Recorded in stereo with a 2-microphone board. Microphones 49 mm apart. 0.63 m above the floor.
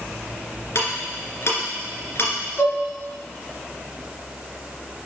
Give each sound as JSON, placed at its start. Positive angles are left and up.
{"t": 0.8, "sound": "ticking", "side_deg": 55, "distance_m": 2.5}
{"t": 2.6, "sound": "dishes clattering", "side_deg": 70, "distance_m": 2.5}